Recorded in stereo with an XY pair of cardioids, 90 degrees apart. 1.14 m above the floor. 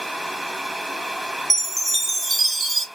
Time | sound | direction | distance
0.0 | a fan | 5° right | 1.0 m
1.5 | a chime | 25° right | 0.6 m